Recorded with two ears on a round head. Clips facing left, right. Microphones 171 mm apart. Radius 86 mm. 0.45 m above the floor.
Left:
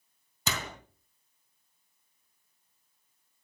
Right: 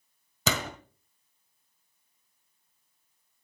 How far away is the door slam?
About 1.8 m.